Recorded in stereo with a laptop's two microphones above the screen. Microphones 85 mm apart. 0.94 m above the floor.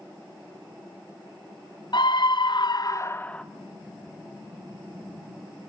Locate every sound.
1.9 s a scream: 60° left (ahead or behind), 0.9 m; by 3.4 s 10° left (ahead or behind), 0.7 m